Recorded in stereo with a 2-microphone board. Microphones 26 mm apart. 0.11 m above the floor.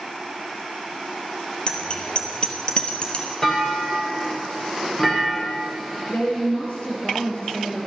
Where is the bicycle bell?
40° left (ahead or behind), 2 m; by 3.3 s 35° left (ahead or behind), 1.4 m.